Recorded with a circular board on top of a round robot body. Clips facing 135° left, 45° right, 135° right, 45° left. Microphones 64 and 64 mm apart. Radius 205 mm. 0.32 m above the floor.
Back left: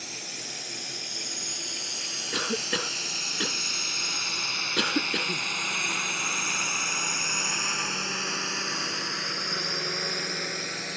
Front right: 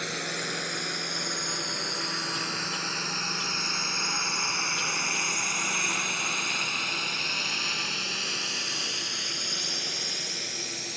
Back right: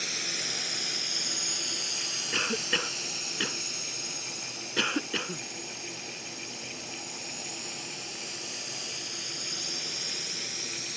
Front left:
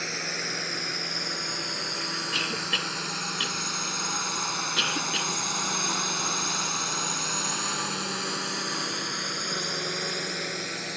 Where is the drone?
15° right; by 11.0 s 90° left.